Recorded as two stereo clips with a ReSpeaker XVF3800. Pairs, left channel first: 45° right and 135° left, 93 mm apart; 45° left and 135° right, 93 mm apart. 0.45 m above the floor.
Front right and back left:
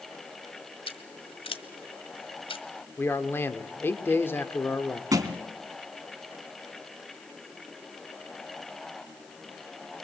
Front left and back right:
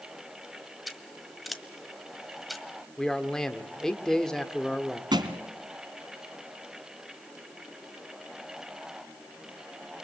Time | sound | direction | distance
0.9 | scissors | 45° right | 1.3 m
3.0 | a man speaking | 30° right | 1.3 m
5.1 | a thud | 175° right | 1.5 m